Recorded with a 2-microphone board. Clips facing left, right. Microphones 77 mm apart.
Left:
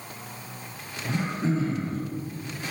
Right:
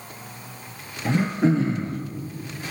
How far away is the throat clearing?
About 1.1 m.